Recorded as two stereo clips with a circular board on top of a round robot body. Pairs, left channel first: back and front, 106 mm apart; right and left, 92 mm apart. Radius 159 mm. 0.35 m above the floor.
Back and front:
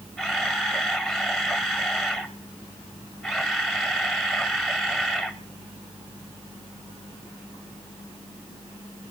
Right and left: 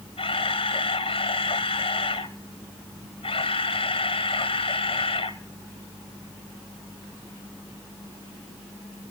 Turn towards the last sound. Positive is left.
turn(degrees=-90)